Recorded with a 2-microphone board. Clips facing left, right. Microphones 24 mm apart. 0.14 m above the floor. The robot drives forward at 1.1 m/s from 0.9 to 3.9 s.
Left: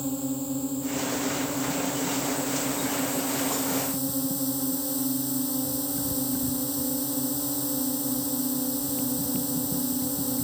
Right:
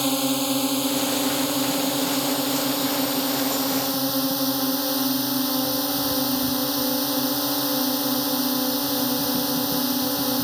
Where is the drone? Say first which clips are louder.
Right 7 dB; 70° right (ahead or behind); by 10.4 s 50° right (ahead or behind).